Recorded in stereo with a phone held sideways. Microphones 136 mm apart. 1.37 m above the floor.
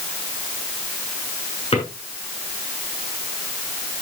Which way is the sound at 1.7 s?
45° left (ahead or behind).